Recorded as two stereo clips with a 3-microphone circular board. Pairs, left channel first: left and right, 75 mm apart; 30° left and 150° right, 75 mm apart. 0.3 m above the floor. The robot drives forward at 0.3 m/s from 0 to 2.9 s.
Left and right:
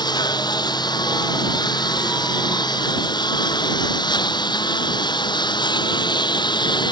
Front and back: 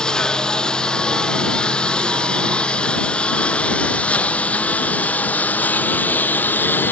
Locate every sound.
0.0 s a lawn mower: 110° left; by 6.9 s 95° left